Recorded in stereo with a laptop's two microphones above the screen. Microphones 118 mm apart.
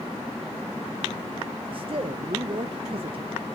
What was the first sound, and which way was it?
A man speaking, 50° right (ahead or behind).